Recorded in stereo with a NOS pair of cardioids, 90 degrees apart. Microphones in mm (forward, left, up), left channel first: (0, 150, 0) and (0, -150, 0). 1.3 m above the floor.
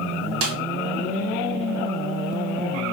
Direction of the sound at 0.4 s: 50° right.